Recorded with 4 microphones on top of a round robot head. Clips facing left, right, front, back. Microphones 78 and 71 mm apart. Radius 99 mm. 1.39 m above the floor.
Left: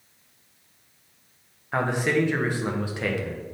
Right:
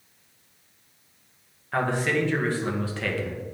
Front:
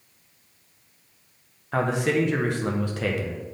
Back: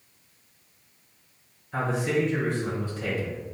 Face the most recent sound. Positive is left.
turn(degrees=15)